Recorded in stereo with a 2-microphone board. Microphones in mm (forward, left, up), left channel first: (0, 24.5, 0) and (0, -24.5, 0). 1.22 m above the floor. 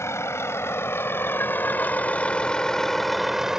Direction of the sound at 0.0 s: 70° left (ahead or behind).